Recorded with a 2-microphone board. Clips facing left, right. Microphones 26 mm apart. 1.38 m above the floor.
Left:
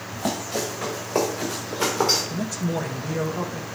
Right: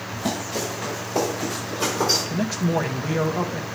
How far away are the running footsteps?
About 5 m.